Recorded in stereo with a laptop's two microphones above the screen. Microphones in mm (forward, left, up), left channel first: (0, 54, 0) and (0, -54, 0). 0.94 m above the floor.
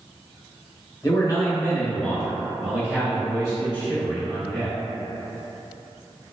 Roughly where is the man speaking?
Left.